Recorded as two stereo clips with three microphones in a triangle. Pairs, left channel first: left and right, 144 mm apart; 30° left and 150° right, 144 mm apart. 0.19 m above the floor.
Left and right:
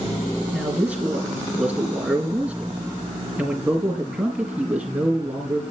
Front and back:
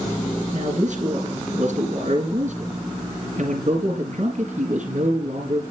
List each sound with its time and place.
0.5 s a man speaking: 170° right, 4 m